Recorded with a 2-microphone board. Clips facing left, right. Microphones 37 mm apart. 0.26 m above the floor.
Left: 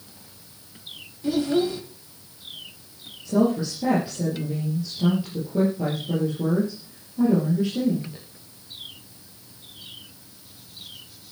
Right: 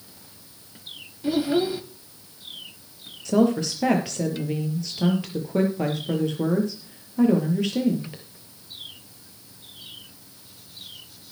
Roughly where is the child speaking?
Centre.